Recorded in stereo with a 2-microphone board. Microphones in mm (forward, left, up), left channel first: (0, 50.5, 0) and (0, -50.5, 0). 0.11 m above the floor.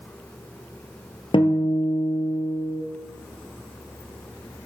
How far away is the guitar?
About 1.0 m.